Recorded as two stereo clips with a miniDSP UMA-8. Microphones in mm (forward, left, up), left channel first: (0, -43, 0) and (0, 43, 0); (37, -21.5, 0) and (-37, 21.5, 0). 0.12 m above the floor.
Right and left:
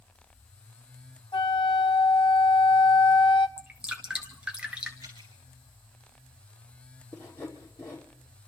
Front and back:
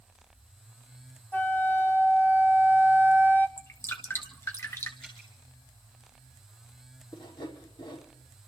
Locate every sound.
1.3 s a flute: 95° right, 1.2 m
3.6 s dripping: 15° left, 2 m
5.0 s dripping: 55° left, 6.5 m
7.1 s sawing: 30° right, 5.5 m